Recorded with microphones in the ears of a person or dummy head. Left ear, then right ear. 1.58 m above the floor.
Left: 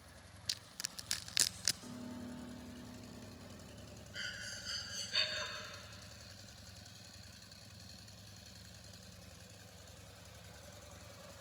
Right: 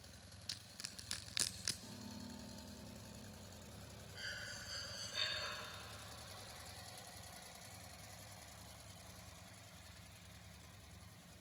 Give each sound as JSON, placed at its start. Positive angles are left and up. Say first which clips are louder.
{"t": 0.5, "sound": "crushing", "louder": "left 7 dB", "side_deg": 15, "distance_m": 0.6}
{"t": 1.8, "sound": "a piano", "louder": "left 4 dB", "side_deg": 80, "distance_m": 3.5}
{"t": 4.1, "sound": "breathing", "louder": "left 3 dB", "side_deg": 55, "distance_m": 5.0}